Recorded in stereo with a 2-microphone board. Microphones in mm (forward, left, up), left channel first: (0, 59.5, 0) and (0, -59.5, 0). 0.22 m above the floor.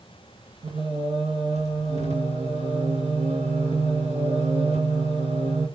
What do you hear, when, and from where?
0.6 s singing: 75° right (ahead or behind), 1.6 m